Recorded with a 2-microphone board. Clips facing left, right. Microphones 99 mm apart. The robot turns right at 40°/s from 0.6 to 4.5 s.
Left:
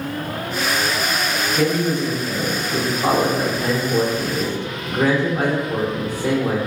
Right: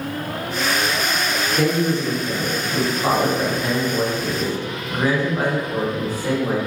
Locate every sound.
1.6 s a man speaking: 5° right, 1.1 m; by 6.6 s 115° left, 1.1 m